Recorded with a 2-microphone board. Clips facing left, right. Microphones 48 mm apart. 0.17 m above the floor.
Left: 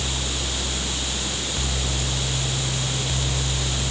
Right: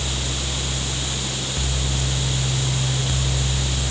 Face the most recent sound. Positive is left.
No sound to turn to.